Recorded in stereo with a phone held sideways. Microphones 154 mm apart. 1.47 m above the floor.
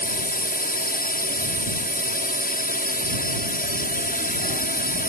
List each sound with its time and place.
0.0 s a drone: 65° left (ahead or behind)